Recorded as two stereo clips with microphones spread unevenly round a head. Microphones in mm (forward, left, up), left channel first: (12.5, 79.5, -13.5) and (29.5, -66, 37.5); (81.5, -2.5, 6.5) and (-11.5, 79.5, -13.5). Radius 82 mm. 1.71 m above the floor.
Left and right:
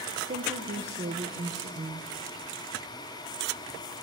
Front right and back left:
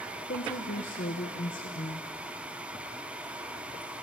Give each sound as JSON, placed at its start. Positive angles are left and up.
{"t": 0.3, "sound": "a woman speaking", "azimuth_deg": -45, "distance_m": 1.4}